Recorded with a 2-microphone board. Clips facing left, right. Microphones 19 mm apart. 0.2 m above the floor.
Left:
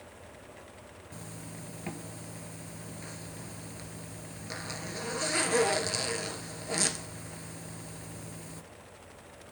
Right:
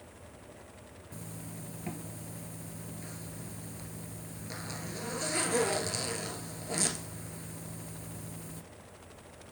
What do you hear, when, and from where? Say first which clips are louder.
1.1 s a zipper: even; 25° left (ahead or behind), 0.8 m